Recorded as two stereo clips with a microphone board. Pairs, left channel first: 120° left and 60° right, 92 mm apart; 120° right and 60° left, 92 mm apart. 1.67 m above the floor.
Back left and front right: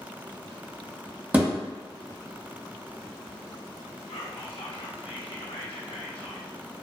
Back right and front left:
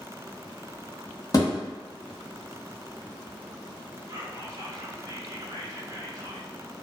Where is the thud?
120° right, 1.2 m.